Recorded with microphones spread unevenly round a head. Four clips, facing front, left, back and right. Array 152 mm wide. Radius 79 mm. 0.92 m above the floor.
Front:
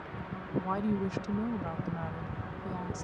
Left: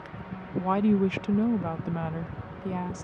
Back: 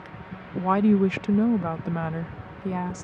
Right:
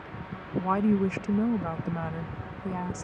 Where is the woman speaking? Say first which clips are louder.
Left 1 dB, back 12 dB; straight behind.